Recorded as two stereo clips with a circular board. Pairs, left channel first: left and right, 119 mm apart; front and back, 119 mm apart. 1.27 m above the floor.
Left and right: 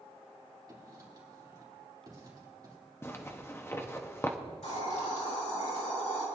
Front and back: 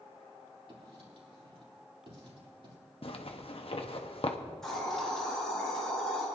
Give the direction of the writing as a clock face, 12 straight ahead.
5 o'clock.